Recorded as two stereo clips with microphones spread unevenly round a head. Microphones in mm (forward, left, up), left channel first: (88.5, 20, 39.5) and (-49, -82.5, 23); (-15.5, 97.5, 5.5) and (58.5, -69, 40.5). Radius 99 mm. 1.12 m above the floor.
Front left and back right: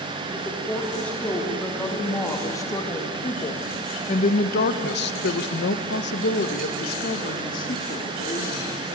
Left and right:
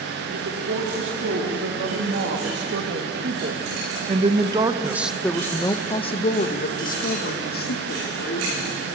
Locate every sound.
0.3 s a woman speaking: 50° right, 3.5 m; by 8.8 s 95° left, 3 m